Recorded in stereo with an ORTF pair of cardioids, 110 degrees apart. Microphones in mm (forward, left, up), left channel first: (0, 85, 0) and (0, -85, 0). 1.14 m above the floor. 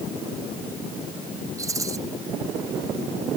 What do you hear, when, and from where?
1.6 s a rattle: 20° right